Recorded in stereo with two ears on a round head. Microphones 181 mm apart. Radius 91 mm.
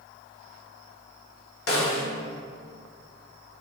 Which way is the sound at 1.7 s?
50° left (ahead or behind).